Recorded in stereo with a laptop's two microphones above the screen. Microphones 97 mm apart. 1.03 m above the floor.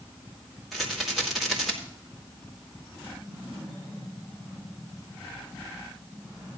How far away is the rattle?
About 2.0 m.